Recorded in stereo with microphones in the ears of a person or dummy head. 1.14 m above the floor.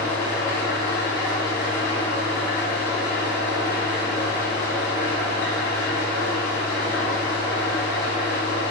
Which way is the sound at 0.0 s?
45° left (ahead or behind).